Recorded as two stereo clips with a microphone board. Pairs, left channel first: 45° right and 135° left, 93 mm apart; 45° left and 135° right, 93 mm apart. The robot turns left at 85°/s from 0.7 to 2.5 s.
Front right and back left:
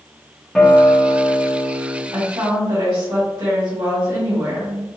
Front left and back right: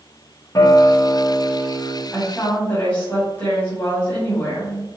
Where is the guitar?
35° left, 1.1 m; by 2.0 s 80° right, 1.1 m.